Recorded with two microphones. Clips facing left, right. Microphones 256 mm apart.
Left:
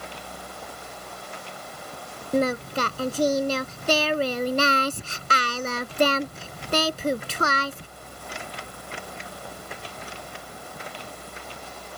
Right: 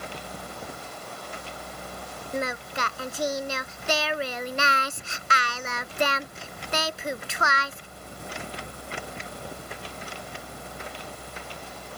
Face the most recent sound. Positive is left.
turn(degrees=40)  # may be behind; listen again after turning